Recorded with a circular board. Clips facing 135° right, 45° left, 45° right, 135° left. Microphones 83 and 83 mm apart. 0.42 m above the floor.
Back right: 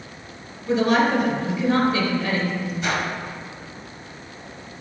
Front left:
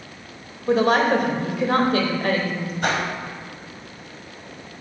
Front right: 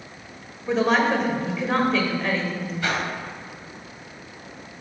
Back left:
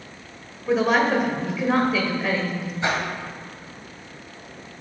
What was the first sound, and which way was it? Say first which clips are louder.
A woman speaking: front left 1 dB, back left 1 dB; 50° left.